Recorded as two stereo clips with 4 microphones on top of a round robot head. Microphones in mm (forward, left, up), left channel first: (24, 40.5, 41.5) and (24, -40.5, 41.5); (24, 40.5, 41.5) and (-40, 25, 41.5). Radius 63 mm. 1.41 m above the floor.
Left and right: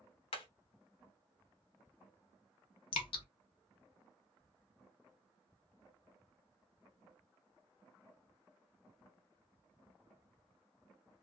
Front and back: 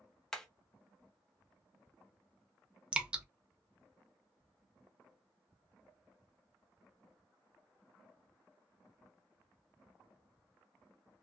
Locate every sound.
0.3 s hammering: 95° left, 0.8 m
2.9 s dripping: 120° left, 0.6 m